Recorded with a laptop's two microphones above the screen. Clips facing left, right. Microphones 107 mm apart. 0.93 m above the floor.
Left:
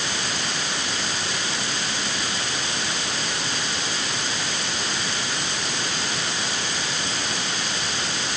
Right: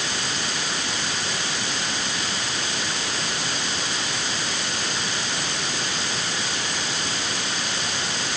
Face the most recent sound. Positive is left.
No sound to turn to.